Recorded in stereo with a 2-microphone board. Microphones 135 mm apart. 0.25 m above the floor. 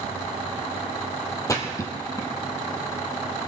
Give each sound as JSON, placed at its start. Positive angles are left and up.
{"t": 1.5, "sound": "a splash", "side_deg": 25, "distance_m": 1.6}